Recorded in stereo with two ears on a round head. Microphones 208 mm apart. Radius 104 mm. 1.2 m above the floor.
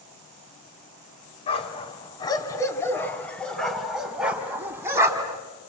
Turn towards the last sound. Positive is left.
turn(degrees=-15)  # may be behind; listen again after turning